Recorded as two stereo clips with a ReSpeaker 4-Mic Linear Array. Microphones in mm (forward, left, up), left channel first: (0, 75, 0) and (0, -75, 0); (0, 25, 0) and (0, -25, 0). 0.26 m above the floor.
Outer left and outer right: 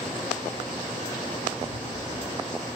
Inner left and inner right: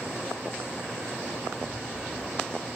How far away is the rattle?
About 1.8 m.